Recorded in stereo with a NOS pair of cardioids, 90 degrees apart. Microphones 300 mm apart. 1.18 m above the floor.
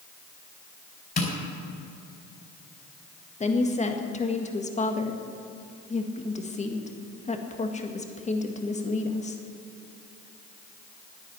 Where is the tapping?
30° left, 5 m.